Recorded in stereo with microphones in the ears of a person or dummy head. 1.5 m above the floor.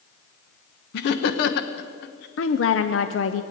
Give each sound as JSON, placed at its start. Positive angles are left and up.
{"t": 0.9, "sound": "laughter", "side_deg": 70, "distance_m": 1.1}
{"t": 2.4, "sound": "a woman speaking", "side_deg": 70, "distance_m": 0.7}